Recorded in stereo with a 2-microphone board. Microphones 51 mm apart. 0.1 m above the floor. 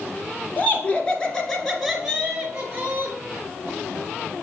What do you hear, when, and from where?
0.6 s laughter: 30° left (ahead or behind), 1.4 m; by 3.1 s 30° right (ahead or behind), 1.7 m